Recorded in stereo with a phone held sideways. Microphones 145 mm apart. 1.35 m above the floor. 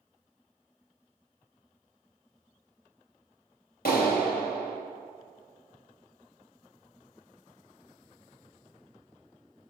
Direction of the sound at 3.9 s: 85° left.